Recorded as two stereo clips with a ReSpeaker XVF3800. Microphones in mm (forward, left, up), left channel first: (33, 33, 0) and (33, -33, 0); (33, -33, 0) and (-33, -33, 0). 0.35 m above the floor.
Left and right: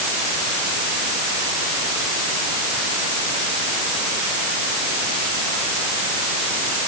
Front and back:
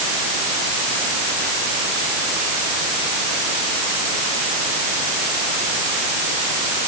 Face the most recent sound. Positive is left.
No sound to turn to.